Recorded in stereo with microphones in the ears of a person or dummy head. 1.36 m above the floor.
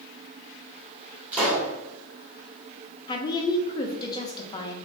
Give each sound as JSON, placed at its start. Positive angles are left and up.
{"t": 1.3, "sound": "a pop", "side_deg": -10, "distance_m": 1.7}
{"t": 3.1, "sound": "a woman speaking", "side_deg": 20, "distance_m": 0.5}